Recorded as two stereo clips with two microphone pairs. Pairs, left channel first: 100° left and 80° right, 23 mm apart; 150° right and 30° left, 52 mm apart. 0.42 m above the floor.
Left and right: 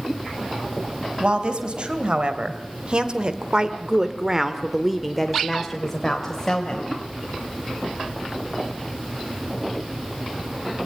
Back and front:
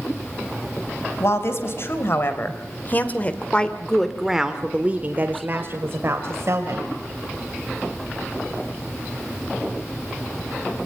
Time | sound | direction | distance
1.2 | a woman speaking | 120° right | 3 m